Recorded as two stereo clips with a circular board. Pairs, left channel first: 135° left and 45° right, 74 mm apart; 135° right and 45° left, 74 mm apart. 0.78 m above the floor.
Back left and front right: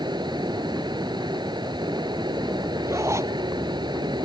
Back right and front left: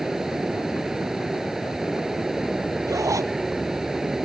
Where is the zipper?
5° left.